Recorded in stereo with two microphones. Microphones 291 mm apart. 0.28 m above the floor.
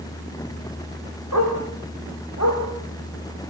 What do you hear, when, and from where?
1.3 s a dog barking: 75° left (ahead or behind), 8 m; by 2.6 s 70° left (ahead or behind), 10 m